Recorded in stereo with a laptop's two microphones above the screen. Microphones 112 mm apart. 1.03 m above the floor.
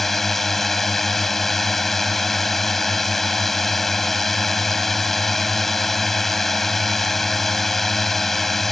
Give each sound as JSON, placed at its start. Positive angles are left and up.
{"t": 0.0, "sound": "a drone", "side_deg": 0}